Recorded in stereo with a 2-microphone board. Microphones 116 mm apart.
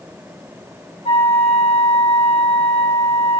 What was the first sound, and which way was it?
A flute, 75° left (ahead or behind).